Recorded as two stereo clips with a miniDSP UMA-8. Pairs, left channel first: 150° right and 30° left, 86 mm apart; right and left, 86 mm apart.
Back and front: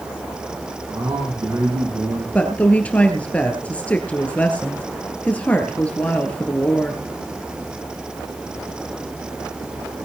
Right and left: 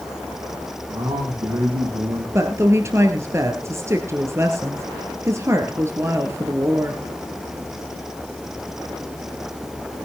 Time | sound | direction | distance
0.9 | a man speaking | 70° left | 7.5 m
2.4 | a woman speaking | 140° left | 2 m